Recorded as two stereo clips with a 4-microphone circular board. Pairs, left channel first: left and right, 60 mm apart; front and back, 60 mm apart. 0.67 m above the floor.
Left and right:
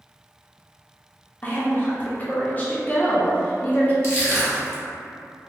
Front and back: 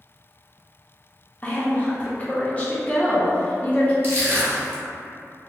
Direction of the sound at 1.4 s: 50° left.